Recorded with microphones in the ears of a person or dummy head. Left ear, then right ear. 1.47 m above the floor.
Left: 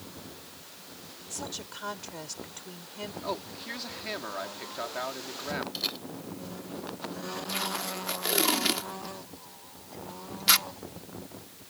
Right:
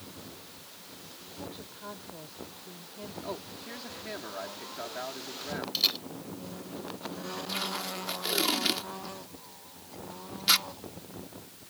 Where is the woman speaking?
70° left (ahead or behind).